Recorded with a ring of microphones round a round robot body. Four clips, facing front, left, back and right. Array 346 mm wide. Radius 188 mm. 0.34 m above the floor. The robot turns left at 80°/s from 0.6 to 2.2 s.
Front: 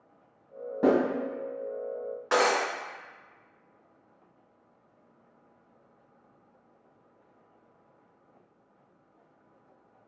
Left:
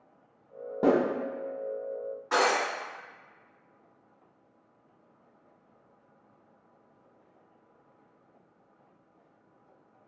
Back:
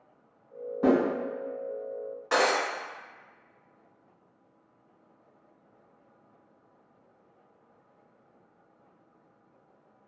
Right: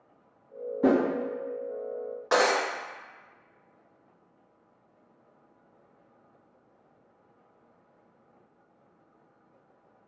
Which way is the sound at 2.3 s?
75° right.